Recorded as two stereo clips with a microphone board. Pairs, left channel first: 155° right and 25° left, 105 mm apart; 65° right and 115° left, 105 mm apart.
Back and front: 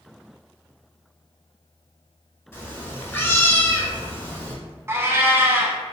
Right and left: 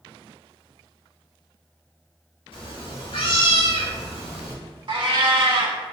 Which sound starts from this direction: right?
A cat meowing, at 2.5 s.